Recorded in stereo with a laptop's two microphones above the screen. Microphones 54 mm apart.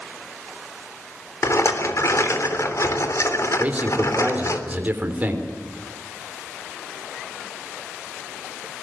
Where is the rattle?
65° left (ahead or behind), 3.5 m.